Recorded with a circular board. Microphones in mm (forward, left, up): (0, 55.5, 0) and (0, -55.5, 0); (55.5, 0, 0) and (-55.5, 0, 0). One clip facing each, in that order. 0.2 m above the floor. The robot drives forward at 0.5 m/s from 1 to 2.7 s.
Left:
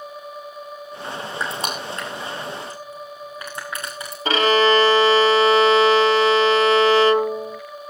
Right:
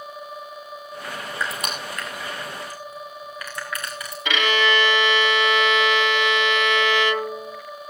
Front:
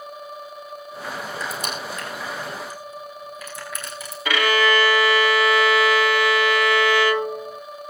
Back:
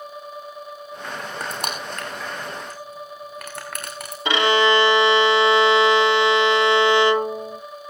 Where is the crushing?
150° left, 5 m; by 4.2 s 155° left, 5.5 m.